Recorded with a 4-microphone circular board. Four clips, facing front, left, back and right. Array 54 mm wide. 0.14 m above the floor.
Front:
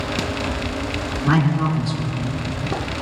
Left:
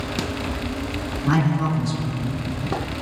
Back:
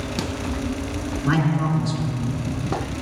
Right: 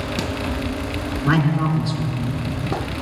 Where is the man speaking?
75° right, 2 m; by 2.4 s 25° right, 1.9 m.